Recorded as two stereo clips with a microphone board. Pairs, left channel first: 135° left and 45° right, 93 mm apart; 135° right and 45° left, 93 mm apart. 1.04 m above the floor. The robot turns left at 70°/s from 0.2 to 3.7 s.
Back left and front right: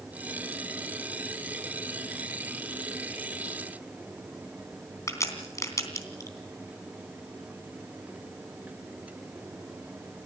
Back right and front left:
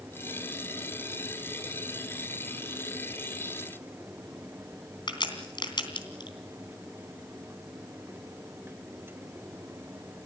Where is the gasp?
No gasp in this recording.